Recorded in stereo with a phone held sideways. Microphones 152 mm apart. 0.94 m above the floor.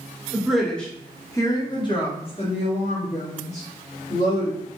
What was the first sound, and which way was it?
A woman speaking, 5° right (ahead or behind).